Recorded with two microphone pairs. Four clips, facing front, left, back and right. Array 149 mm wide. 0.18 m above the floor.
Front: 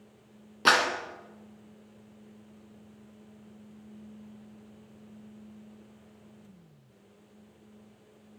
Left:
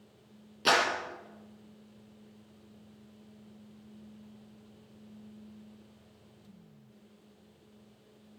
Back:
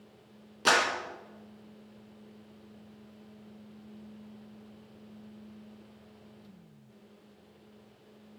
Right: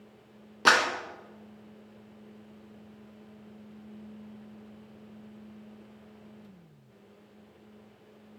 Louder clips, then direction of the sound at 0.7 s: Right 3 dB, front 2 dB; 65° right.